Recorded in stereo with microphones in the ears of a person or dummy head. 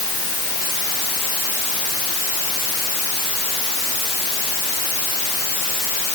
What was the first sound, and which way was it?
Only background noise.